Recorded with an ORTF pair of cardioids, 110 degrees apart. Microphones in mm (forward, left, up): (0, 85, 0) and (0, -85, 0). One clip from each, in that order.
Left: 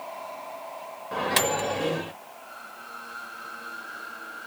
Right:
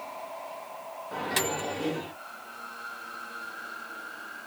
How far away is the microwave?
About 0.9 m.